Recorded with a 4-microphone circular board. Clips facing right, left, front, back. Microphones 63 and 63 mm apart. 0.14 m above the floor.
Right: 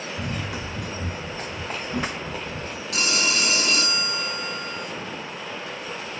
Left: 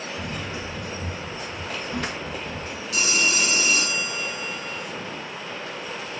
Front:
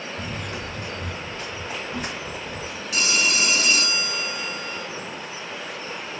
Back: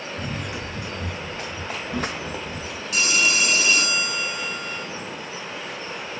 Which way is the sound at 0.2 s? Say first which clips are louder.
Right 1 dB, back 2 dB; 95° right.